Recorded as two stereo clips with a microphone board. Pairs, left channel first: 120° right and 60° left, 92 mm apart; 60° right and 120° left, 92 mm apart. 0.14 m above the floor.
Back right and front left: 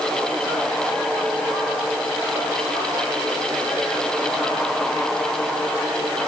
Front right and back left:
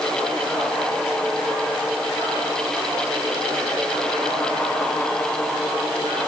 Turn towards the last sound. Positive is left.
No sound to turn to.